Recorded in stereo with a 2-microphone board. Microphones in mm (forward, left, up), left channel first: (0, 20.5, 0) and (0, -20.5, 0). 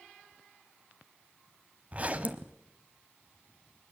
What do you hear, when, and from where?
1.9 s a zipper: 30° right (ahead or behind), 1.1 m